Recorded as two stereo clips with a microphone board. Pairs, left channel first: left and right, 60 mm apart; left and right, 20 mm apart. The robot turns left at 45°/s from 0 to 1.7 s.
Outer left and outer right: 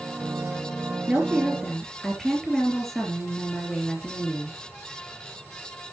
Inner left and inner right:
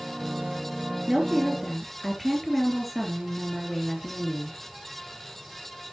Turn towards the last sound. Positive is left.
turn(degrees=5)  # may be behind; listen again after turning